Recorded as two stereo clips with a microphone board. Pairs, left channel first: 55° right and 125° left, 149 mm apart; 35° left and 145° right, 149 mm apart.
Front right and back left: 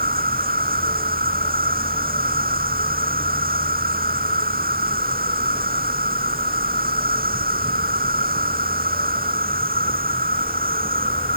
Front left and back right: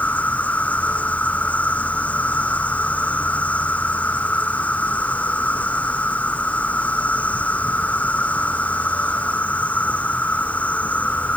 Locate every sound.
0.0 s an insect: 115° left